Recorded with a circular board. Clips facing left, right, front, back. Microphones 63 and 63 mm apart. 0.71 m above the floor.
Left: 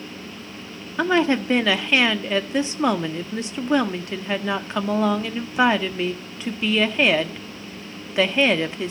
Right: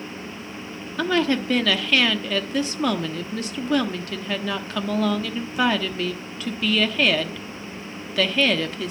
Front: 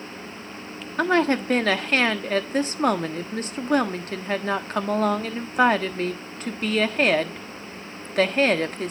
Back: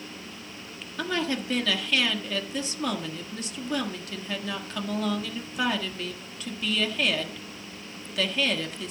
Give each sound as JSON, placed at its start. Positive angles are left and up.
{"t": 1.0, "sound": "a woman speaking", "azimuth_deg": 30, "distance_m": 1.2}